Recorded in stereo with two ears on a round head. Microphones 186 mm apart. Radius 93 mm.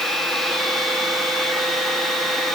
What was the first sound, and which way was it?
Only background noise.